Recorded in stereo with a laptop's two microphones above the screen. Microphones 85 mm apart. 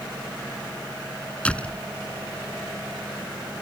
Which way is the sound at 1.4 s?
15° left (ahead or behind).